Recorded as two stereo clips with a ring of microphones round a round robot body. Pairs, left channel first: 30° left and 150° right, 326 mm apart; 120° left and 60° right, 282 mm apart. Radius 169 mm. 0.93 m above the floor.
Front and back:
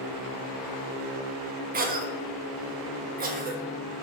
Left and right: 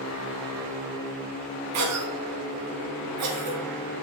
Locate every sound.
1.7 s a cough: 90° right, 0.6 m